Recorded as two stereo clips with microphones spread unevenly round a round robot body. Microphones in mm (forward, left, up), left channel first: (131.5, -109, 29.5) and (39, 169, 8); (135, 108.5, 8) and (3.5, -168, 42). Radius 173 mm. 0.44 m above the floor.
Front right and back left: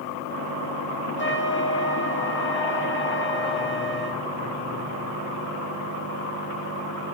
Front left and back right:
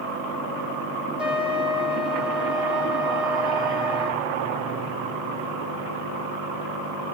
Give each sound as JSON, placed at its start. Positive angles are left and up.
{"t": 1.2, "sound": "a trumpet", "azimuth_deg": -25, "distance_m": 1.5}